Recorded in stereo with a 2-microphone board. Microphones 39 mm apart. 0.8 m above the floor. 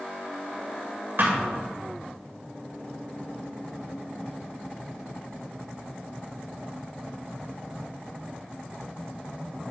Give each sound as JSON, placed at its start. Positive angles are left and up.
{"t": 1.2, "sound": "a thud", "side_deg": -60, "distance_m": 1.7}